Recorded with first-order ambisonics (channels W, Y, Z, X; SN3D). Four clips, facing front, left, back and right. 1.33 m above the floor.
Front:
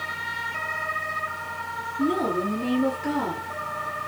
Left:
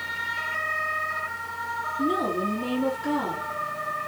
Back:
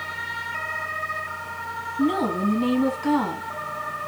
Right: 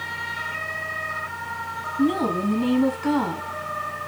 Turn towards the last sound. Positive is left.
turn(degrees=-145)